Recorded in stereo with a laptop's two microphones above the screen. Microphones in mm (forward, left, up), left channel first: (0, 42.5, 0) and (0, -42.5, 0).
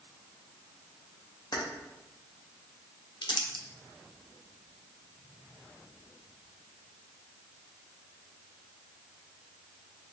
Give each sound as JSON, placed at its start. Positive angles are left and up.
{"t": 1.5, "sound": "keys jangling", "side_deg": 55, "distance_m": 0.9}
{"t": 3.2, "sound": "crumpling", "side_deg": 60, "distance_m": 0.5}